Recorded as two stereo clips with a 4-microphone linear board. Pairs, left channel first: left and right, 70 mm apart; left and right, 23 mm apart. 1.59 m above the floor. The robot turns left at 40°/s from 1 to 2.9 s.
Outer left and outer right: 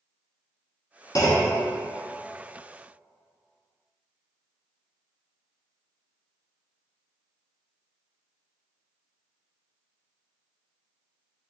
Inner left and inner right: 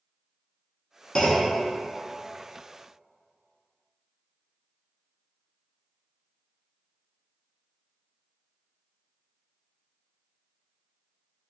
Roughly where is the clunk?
Left.